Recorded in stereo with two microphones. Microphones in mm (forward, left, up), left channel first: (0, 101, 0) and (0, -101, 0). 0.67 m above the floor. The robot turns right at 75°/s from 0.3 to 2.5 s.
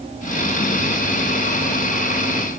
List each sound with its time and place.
Only background noise.